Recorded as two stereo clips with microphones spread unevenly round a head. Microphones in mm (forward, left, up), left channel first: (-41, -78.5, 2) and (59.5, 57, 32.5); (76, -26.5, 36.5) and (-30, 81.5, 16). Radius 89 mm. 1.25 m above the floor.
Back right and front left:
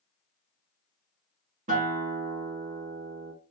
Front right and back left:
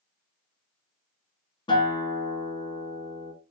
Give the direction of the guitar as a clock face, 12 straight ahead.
12 o'clock.